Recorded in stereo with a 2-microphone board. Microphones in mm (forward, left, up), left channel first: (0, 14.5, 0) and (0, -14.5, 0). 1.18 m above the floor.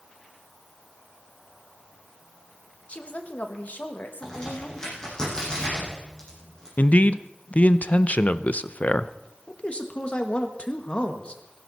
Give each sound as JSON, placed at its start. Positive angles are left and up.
{"t": 2.9, "sound": "a woman speaking", "side_deg": 45, "distance_m": 1.6}
{"t": 4.2, "sound": "a crack", "side_deg": 25, "distance_m": 8.5}
{"t": 6.8, "sound": "a man speaking", "side_deg": 50, "distance_m": 0.6}
{"t": 9.5, "sound": "a man speaking", "side_deg": 35, "distance_m": 1.5}